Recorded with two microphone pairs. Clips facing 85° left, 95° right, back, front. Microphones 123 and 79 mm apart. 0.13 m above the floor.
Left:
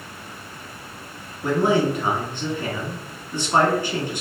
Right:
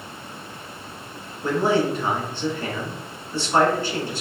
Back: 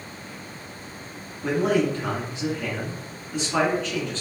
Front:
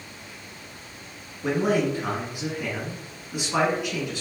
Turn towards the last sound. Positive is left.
turn(degrees=45)